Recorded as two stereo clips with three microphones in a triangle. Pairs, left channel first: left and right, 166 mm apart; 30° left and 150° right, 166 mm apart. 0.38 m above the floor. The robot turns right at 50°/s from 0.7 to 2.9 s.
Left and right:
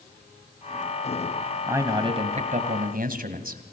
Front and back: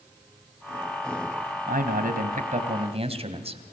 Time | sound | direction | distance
1.7 | a man speaking | 165° right | 2 m